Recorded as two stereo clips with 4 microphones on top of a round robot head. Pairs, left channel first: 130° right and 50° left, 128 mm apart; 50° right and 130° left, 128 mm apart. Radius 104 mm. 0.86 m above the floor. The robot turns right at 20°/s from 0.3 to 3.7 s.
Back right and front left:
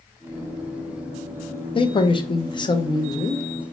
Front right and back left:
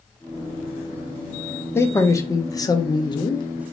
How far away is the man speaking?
About 0.7 m.